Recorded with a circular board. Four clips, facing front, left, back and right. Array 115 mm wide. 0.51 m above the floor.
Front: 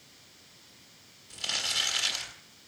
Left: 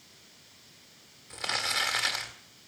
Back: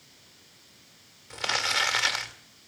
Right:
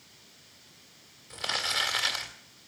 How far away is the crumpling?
About 1.6 m.